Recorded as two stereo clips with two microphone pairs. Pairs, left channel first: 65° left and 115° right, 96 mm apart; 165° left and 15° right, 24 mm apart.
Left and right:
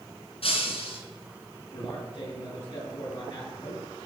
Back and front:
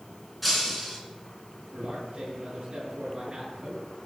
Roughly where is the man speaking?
Ahead left.